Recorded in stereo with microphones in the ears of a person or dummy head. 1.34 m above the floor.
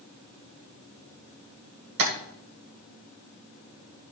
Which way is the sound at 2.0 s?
60° right (ahead or behind).